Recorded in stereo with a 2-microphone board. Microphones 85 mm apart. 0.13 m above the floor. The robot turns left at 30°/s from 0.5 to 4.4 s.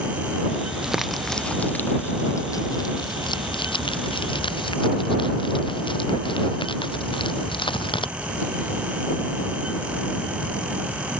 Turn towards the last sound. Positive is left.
turn(degrees=80)